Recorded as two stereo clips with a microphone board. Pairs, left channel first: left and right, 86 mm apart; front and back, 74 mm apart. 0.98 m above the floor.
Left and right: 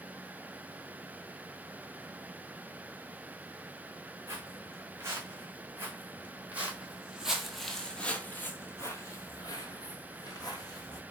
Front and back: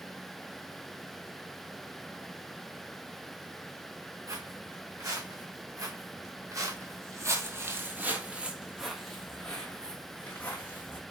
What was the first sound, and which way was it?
Footsteps, 145° right.